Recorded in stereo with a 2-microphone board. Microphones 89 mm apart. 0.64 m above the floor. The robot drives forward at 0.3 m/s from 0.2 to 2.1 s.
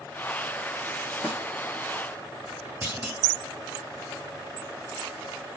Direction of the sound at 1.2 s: 10° right (ahead or behind).